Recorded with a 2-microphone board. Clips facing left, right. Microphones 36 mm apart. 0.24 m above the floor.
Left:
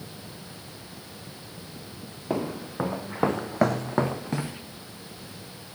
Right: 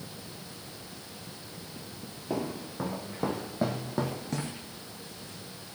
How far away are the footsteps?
About 1.6 m.